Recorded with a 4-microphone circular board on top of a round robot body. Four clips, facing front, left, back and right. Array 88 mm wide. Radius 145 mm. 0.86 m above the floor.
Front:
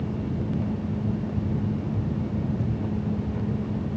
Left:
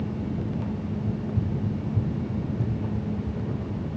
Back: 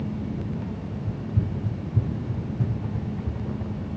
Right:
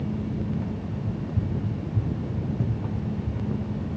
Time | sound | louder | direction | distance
1.1 | running footsteps | right 1 dB, front 3 dB | 175° right | 2.5 m